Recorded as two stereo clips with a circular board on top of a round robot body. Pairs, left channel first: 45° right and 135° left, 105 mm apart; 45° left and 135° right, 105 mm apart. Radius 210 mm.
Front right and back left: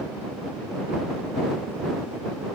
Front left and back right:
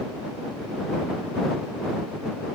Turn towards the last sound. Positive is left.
No sound to turn to.